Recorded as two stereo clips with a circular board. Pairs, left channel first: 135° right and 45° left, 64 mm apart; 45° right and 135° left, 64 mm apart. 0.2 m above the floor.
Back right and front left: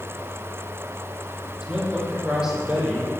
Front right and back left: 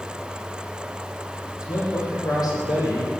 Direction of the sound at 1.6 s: 30° right.